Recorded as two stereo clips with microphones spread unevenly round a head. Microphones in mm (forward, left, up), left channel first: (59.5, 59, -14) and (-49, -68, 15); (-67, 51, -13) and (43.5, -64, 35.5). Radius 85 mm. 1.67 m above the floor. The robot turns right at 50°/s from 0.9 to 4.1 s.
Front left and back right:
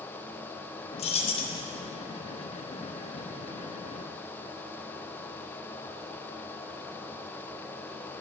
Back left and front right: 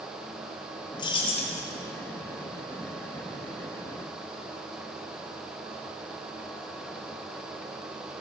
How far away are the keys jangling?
About 0.6 m.